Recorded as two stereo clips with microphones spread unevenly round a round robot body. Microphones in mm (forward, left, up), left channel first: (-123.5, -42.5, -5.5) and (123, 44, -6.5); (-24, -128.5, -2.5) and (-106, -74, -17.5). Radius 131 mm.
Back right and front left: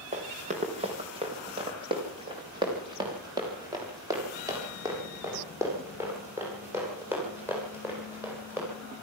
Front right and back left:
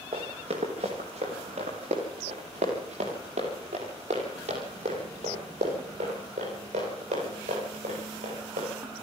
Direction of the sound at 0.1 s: 85° left.